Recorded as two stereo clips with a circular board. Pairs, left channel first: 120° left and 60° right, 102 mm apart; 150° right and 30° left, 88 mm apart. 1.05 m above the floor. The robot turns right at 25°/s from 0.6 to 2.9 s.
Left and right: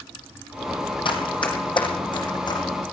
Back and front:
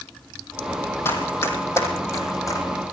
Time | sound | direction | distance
1.1 | running footsteps | 150° left | 2.5 m